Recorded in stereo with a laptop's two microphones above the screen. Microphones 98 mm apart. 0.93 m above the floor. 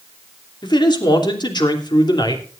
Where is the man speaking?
45° left (ahead or behind), 3 m.